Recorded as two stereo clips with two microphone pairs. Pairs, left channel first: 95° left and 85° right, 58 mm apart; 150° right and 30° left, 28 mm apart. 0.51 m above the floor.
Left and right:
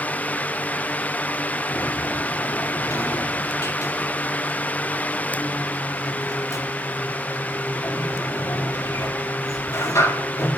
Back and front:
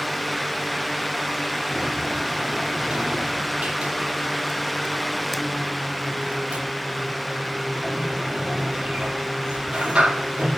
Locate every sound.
1.7 s a sliding door: 85° left, 5 m